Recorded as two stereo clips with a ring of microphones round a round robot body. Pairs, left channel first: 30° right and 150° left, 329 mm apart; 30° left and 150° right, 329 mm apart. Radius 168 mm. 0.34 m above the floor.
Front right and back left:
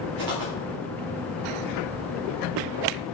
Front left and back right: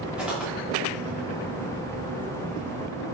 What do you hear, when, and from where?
0.2 s footsteps: 125° left, 3.5 m